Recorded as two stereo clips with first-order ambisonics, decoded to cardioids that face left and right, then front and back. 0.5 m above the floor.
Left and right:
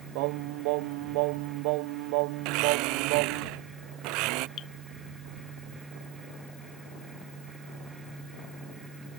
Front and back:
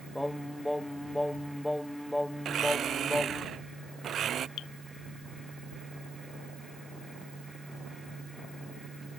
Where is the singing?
85° right.